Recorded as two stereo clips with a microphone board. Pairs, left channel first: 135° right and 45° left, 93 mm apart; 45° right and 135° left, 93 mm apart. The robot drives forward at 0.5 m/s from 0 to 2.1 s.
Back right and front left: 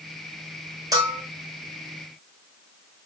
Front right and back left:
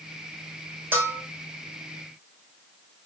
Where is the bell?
75° left, 0.9 m; by 1.2 s 90° left, 0.9 m.